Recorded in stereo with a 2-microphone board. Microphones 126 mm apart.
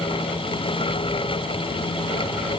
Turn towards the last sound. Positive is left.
No sound to turn to.